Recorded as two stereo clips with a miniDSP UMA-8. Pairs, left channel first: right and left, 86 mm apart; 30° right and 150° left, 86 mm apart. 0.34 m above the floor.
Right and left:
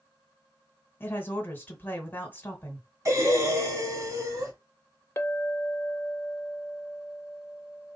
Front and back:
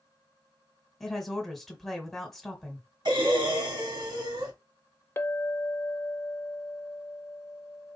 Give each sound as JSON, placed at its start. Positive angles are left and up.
{"t": 1.0, "sound": "a woman speaking", "azimuth_deg": -115, "distance_m": 1.5}
{"t": 3.0, "sound": "breathing", "azimuth_deg": 135, "distance_m": 1.8}
{"t": 5.2, "sound": "a clink", "azimuth_deg": -60, "distance_m": 0.5}